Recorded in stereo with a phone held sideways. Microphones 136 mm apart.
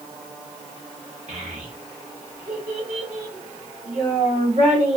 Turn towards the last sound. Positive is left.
turn(degrees=-65)  # may be behind; listen again after turning